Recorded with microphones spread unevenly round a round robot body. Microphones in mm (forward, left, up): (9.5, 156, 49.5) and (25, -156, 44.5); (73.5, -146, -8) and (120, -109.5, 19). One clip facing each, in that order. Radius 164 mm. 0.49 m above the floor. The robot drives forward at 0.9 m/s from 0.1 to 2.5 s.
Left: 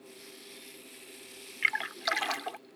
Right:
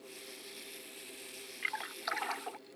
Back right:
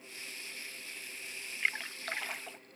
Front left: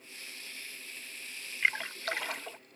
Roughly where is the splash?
Ahead left.